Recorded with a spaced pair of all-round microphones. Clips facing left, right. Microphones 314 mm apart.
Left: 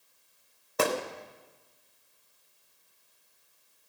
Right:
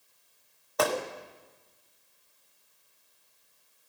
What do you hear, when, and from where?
0.8 s a gunshot: 30° left (ahead or behind), 1.2 m